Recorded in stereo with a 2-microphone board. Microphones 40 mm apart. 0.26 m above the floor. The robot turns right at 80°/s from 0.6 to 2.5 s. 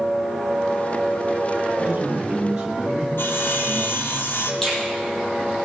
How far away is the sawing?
About 2 m.